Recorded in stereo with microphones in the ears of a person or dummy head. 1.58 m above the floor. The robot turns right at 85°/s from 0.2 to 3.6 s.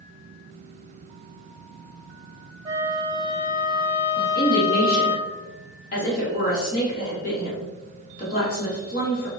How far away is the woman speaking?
About 1.6 m.